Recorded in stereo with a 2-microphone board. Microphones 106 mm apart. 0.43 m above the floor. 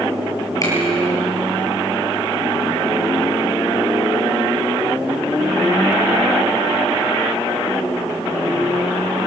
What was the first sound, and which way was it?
A finger snap, 35° left (ahead or behind).